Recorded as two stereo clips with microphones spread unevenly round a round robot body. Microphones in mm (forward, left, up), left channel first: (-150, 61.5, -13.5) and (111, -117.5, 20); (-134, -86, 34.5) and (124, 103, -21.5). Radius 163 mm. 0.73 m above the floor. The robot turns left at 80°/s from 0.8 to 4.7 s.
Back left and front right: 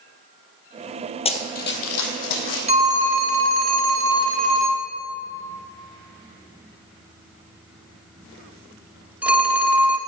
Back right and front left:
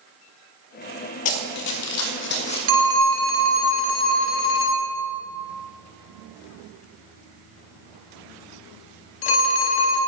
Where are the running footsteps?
140° right, 1.1 m; by 2.6 s 145° left, 2 m.